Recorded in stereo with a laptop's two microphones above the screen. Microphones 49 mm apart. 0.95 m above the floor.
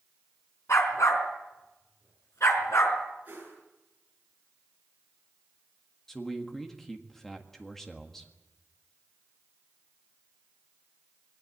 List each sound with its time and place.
0.7 s a dog barking: 85° left, 4 m
3.2 s a whoosh: 35° right (ahead or behind), 8.5 m
6.1 s a man speaking: 5° left (ahead or behind), 1.6 m